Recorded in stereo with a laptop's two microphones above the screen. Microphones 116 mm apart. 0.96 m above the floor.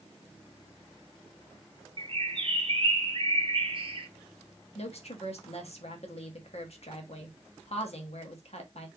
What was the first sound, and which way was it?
A bird, 50° right (ahead or behind).